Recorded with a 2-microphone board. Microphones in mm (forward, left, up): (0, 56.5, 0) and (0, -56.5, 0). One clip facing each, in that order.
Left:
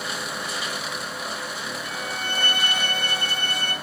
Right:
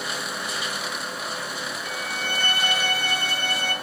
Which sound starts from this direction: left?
A violin, at 1.8 s.